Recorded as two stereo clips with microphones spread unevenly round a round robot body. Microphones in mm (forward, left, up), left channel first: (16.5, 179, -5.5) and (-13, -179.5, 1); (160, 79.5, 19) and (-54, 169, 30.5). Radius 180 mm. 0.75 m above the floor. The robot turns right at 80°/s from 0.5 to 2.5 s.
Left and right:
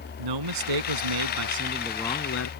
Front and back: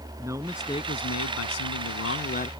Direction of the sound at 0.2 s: 120° right.